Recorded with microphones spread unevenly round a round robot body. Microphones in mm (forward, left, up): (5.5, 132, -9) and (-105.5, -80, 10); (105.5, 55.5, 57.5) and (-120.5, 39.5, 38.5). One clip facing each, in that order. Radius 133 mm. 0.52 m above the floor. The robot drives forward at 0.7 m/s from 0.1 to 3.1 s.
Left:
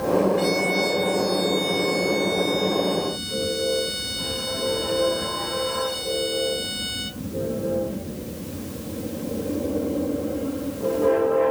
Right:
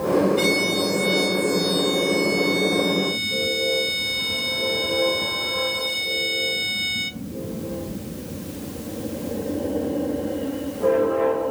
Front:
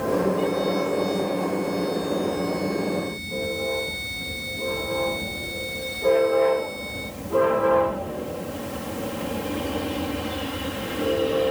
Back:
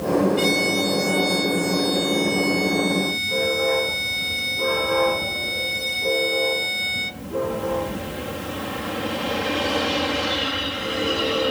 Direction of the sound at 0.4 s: 165° right.